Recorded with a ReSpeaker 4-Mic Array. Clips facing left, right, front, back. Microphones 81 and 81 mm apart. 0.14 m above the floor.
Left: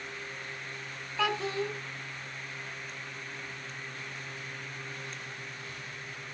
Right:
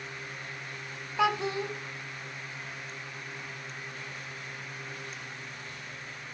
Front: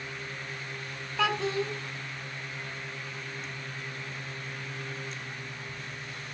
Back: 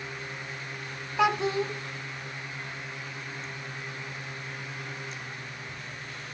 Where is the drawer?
I don't hear a drawer.